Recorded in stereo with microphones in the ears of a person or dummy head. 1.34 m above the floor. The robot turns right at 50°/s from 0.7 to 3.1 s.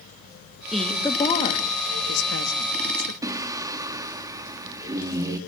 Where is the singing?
20° right (ahead or behind), 1.4 m.